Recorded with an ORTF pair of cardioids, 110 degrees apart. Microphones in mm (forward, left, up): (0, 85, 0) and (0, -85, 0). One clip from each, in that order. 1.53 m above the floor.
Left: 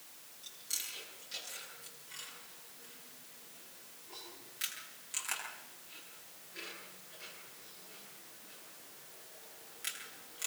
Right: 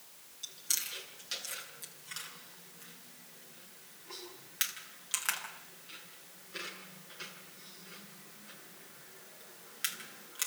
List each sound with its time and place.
0.4 s chewing: 70° right, 9 m